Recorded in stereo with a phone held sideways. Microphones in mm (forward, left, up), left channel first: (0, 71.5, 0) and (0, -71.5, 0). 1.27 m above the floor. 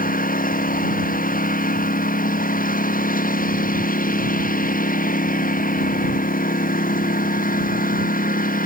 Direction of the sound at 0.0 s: 75° left (ahead or behind).